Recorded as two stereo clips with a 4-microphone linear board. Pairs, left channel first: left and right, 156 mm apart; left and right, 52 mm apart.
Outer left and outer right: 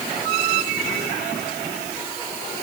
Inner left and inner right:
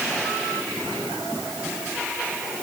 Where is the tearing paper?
No tearing paper in this recording.